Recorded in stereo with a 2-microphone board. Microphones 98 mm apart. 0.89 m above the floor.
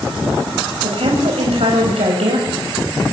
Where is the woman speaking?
80° right, 5 m.